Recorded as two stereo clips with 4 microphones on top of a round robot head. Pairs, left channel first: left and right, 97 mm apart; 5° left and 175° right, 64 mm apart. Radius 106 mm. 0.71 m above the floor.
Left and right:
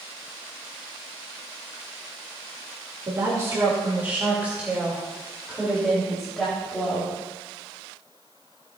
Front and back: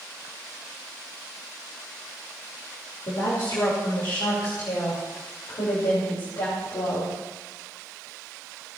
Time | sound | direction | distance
3.1 | a woman speaking | 35° right | 2.5 m